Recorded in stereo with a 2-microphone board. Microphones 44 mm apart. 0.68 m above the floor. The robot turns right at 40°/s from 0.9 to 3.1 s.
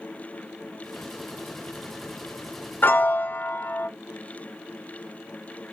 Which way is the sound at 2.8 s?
50° left (ahead or behind).